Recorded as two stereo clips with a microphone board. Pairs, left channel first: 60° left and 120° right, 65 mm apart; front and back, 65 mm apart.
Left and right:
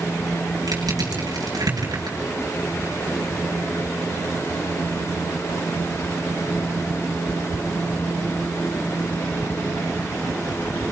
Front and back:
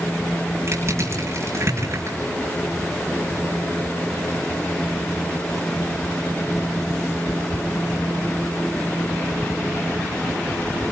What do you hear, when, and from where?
0.7 s crushing: 135° right, 9 m